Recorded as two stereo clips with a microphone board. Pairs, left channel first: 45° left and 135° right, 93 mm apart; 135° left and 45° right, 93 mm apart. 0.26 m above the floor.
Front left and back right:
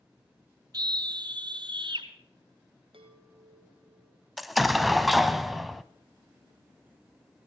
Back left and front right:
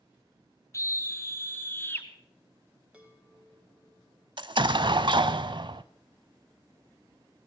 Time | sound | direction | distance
0.7 | a scream | 170° right | 2.5 m
2.9 | a chime | 120° right | 3.5 m
4.4 | an explosion | 45° right | 0.7 m